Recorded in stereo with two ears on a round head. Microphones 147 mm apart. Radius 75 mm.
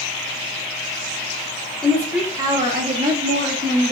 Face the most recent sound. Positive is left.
turn(degrees=-60)  # may be behind; listen again after turning